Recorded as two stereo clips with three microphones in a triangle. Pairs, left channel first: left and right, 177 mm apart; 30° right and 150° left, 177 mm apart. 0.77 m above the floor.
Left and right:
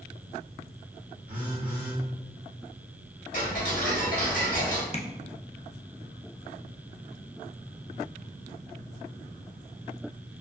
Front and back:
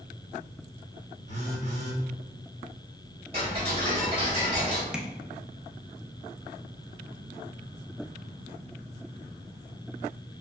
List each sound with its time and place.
1.3 s a phone buzzing: 75° right, 1.8 m
3.3 s ticking: 95° left, 1.7 m
4.9 s tapping: 70° left, 0.5 m